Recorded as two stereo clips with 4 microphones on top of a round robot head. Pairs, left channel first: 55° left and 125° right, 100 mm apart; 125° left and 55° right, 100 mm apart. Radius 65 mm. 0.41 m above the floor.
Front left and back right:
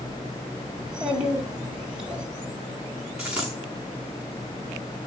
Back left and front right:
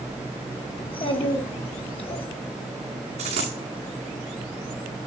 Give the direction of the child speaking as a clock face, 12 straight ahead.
7 o'clock.